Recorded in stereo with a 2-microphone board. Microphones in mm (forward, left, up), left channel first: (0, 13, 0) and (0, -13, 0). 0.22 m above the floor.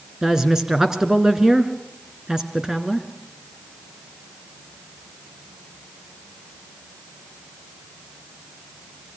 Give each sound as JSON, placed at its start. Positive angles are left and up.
{"t": 0.2, "sound": "a woman speaking", "side_deg": -20, "distance_m": 2.5}